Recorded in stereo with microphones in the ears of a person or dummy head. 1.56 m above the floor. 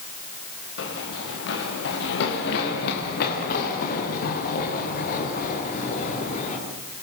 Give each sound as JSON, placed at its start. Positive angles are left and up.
{"t": 0.8, "sound": "running footsteps", "side_deg": 65, "distance_m": 7.0}